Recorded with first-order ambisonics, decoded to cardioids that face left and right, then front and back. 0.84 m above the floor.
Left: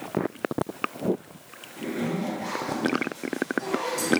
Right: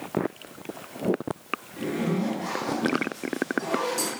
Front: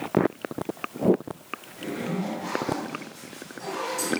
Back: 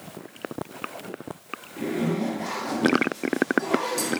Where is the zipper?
165° right, 1.0 m.